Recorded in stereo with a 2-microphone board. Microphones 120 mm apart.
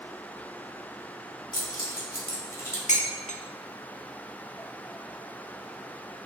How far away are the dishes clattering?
About 1.0 m.